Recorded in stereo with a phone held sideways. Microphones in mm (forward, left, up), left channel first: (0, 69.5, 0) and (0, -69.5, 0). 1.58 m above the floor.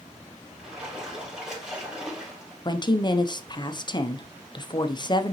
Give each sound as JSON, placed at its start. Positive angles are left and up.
{"t": 0.6, "sound": "a splash", "side_deg": -5, "distance_m": 3.5}
{"t": 2.6, "sound": "a woman speaking", "side_deg": 30, "distance_m": 0.7}